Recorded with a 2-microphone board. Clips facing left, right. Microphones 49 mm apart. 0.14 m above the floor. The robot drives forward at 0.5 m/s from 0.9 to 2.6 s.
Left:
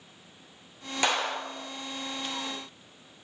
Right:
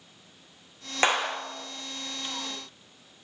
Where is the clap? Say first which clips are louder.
Right 3 dB; 35° right (ahead or behind), 1.8 m.